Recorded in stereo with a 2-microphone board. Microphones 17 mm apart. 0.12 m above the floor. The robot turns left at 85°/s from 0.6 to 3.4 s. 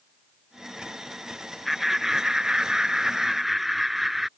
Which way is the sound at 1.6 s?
Straight ahead.